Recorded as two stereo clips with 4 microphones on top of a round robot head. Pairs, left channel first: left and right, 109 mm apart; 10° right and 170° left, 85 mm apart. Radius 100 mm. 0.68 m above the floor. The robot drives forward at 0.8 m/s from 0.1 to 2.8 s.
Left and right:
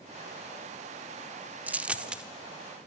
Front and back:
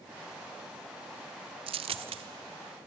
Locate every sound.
1.7 s a dropped coin: 165° right, 0.6 m; by 2.2 s 175° right, 1.1 m